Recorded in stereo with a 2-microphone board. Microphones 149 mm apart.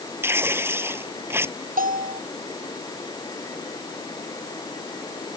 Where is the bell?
90° right.